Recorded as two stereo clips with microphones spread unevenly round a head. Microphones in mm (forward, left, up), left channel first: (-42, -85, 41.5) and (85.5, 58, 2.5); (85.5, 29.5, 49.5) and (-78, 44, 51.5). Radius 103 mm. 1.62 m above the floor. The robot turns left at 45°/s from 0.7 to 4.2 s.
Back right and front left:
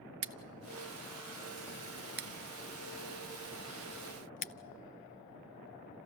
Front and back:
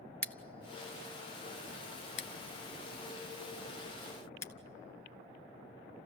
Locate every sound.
0.2 s scissors: 75° left, 0.9 m; by 6.0 s 80° right, 0.9 m